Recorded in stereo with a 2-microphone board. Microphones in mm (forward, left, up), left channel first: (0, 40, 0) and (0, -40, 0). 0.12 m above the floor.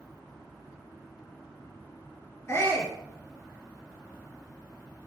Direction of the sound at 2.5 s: 35° left (ahead or behind).